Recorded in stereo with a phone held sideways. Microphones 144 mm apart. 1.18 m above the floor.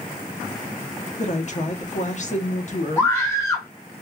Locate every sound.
1.2 s a woman speaking: 55° left (ahead or behind), 0.8 m
3.0 s a scream: 15° left (ahead or behind), 1.9 m